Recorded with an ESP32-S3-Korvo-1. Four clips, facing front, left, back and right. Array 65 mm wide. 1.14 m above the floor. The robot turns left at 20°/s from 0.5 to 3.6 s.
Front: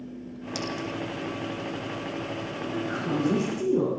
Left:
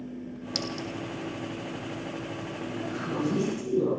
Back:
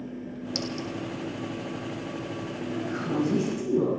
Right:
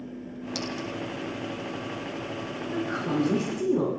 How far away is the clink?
About 2.5 m.